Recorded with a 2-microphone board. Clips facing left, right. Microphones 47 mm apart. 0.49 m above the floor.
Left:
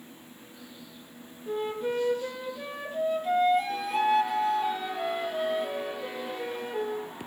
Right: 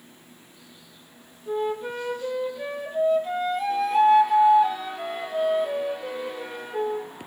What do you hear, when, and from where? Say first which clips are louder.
1.5 s a flute: right 3 dB; centre (ahead or behind), 2.5 m